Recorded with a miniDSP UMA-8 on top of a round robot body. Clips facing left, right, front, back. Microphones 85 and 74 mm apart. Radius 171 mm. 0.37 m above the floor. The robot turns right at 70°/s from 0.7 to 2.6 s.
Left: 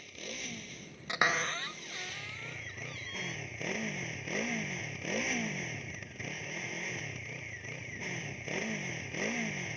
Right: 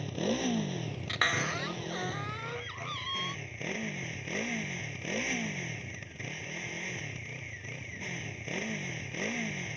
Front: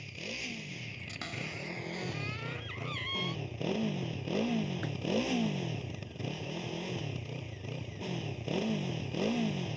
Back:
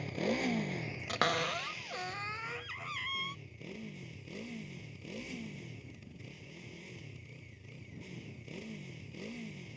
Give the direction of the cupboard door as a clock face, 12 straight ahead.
7 o'clock.